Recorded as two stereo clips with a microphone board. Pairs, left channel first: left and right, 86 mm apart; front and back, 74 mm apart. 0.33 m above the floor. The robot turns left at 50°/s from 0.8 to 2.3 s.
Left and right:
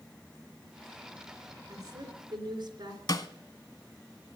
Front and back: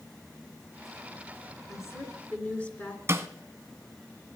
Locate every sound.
1.7 s a woman speaking: 40° right, 3.5 m; by 3.0 s 70° right, 3.5 m
3.1 s a snare drum: 125° left, 1.1 m